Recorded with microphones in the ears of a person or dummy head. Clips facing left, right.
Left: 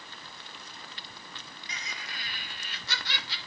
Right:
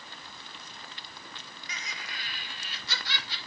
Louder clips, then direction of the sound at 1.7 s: Even; 25° left (ahead or behind).